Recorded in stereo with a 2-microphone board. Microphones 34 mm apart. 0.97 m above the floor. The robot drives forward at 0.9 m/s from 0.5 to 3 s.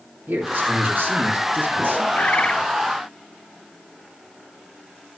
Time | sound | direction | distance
0.3 | a man speaking | 55° right (ahead or behind) | 3 m
2.1 | a bird | 45° left (ahead or behind) | 0.7 m